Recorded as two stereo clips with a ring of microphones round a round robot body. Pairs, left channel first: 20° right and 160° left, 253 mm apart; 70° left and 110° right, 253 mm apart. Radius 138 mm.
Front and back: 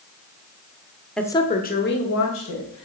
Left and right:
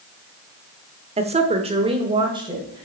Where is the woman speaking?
110° right, 1.0 m; by 2.9 s 40° right, 2.5 m.